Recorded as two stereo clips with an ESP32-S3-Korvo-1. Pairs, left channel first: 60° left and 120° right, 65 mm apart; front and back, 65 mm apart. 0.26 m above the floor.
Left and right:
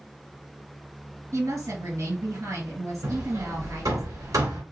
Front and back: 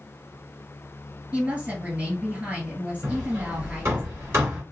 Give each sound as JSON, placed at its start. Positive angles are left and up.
{"t": 1.3, "sound": "a woman speaking", "azimuth_deg": -120, "distance_m": 2.5}
{"t": 3.0, "sound": "hammering", "azimuth_deg": -140, "distance_m": 1.8}